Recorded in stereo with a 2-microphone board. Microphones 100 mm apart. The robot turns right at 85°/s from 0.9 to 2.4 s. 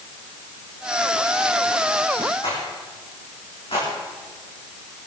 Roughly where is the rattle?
Left.